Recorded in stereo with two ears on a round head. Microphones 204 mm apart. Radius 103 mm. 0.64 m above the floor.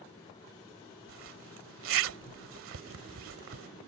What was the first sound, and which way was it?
A zipper, 65° right (ahead or behind).